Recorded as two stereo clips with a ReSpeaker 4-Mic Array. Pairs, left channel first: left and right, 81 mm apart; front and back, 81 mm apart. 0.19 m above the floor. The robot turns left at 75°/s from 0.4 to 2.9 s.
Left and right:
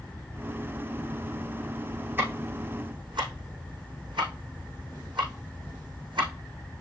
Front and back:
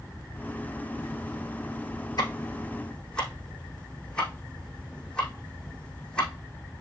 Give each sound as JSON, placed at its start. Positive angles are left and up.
{"t": 2.2, "sound": "ticking", "azimuth_deg": -25, "distance_m": 5.5}